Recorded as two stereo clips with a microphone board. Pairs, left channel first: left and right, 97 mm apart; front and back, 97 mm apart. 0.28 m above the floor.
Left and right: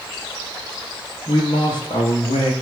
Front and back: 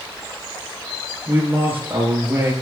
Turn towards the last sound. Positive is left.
turn(degrees=115)